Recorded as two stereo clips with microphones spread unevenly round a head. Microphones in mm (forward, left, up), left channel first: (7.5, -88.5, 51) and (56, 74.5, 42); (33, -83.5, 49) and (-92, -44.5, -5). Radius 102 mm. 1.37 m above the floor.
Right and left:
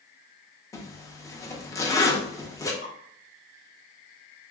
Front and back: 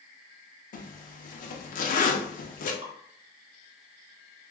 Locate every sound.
0.7 s a zipper: 35° right, 0.5 m
2.8 s dripping: 150° right, 1.1 m